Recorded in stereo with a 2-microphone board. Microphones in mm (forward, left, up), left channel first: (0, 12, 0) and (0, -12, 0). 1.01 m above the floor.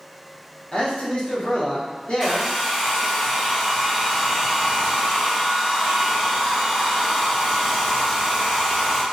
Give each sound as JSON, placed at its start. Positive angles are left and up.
{"t": 0.7, "sound": "a man speaking", "side_deg": 45, "distance_m": 0.8}
{"t": 2.2, "sound": "a hair dryer", "side_deg": -20, "distance_m": 0.8}